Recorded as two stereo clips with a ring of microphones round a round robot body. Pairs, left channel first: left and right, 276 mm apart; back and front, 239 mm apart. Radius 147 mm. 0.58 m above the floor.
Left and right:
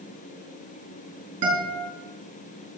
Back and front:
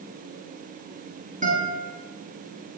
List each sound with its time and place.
1.4 s a guitar: 65° right, 5 m